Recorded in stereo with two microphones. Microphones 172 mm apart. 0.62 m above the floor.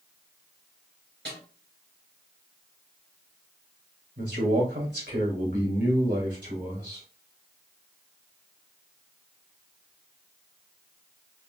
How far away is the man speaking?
About 2.5 m.